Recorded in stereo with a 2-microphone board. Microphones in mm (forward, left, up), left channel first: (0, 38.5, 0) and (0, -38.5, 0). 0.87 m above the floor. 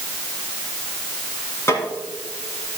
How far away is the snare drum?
About 3.5 m.